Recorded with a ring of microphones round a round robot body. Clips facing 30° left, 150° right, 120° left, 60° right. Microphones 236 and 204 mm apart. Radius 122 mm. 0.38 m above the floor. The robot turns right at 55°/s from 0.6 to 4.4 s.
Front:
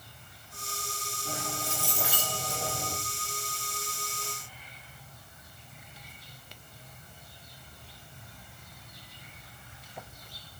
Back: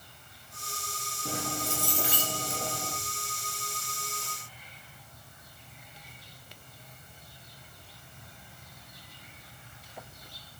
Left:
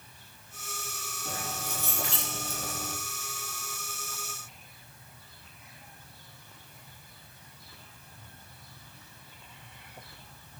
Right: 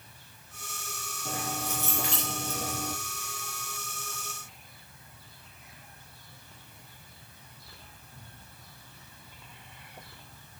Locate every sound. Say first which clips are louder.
1.2 s keys jangling: back 4 dB, right 4 dB; 130° right, 7 m; by 3.0 s 40° right, 7 m